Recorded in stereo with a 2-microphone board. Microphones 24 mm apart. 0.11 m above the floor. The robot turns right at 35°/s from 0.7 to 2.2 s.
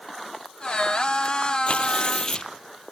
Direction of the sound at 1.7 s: 50° left (ahead or behind).